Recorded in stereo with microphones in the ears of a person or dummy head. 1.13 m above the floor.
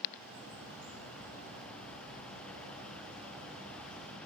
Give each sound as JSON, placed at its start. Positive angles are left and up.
{"t": 0.1, "sound": "a bird", "side_deg": -55, "distance_m": 3.5}